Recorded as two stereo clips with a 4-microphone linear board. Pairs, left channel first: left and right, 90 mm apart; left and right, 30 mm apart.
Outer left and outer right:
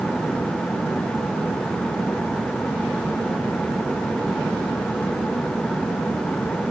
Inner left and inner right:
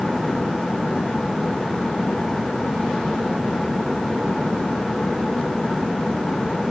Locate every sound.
Only background noise.